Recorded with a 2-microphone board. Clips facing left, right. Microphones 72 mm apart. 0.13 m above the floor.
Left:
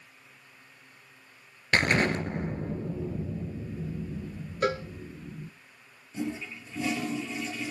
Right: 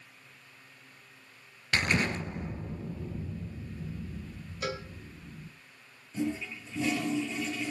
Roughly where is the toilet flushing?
Centre.